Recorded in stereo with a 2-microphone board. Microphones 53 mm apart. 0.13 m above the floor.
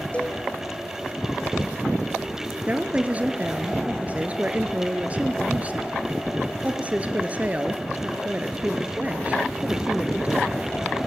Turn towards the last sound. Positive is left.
turn(degrees=-25)  # may be behind; listen again after turning